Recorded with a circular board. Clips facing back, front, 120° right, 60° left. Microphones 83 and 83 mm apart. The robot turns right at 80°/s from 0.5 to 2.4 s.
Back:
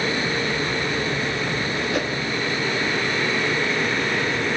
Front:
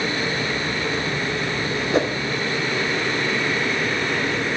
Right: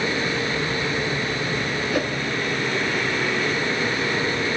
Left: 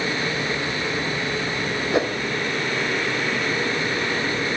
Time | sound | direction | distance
1.9 | a whoosh | 20° left | 0.6 m